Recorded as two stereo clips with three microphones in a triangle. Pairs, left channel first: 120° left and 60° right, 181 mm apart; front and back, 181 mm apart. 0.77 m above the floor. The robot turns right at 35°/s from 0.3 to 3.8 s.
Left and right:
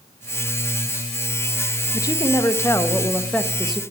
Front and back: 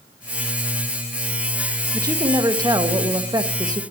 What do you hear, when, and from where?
1.9 s a woman speaking: 145° left, 0.5 m; by 3.8 s 150° right, 0.5 m